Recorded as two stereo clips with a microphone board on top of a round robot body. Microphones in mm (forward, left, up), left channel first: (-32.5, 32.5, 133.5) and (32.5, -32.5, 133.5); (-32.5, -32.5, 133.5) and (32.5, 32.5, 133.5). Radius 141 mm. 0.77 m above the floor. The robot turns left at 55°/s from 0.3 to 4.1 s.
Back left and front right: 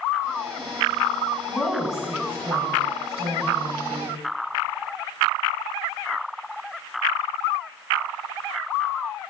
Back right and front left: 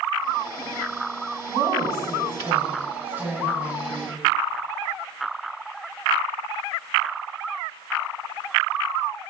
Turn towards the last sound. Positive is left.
turn(degrees=-75)